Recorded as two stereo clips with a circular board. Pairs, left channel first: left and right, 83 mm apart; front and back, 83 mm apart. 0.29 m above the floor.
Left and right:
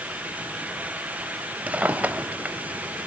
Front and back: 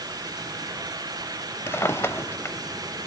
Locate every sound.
1.7 s a drawer: 30° right, 0.9 m